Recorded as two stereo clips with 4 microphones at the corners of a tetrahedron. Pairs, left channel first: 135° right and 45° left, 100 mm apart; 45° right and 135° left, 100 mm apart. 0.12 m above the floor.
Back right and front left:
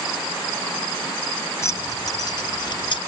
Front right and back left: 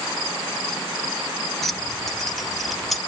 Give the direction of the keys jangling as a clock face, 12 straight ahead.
4 o'clock.